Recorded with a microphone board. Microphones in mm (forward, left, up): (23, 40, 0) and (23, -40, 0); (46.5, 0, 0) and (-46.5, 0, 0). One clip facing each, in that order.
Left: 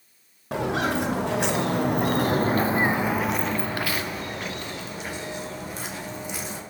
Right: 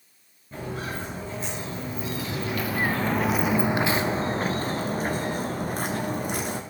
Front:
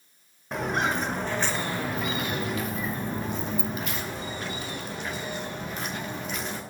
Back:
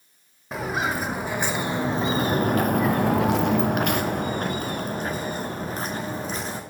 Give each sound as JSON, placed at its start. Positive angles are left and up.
{"t": 0.5, "sound": "footsteps", "azimuth_deg": 90, "distance_m": 1.7}